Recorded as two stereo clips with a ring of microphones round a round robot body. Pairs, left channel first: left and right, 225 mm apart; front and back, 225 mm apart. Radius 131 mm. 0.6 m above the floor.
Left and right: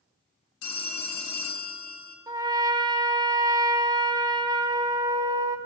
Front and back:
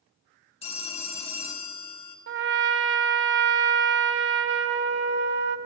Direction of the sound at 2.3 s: 160° right.